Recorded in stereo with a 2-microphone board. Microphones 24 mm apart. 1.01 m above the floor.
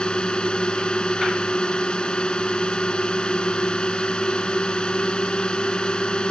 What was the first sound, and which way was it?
A drone, 35° left (ahead or behind).